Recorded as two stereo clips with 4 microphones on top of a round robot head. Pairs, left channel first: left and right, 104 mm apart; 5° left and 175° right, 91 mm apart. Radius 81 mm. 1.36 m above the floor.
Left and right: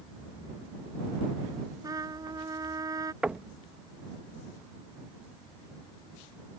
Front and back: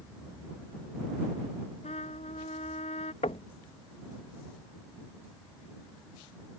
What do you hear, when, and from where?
1.8 s a trumpet: 35° right
3.2 s knocking: 10° right